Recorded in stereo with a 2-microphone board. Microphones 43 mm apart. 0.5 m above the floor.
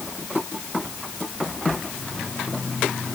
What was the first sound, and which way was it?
Only background noise.